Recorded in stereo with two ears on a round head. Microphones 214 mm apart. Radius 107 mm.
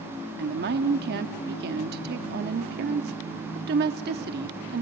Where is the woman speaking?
45° right (ahead or behind), 0.9 m.